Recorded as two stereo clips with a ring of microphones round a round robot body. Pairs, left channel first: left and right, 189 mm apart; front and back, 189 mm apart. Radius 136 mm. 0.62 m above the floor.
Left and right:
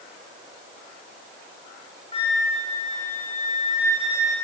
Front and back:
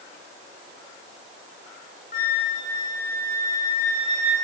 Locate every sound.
2.1 s a flute: 35° left, 3.5 m